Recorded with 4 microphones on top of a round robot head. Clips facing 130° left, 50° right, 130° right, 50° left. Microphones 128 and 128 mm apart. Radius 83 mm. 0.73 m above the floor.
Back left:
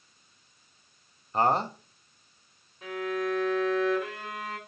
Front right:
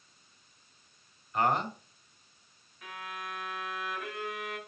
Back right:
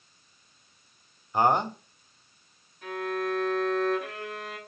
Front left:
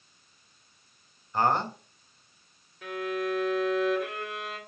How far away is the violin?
About 3.5 m.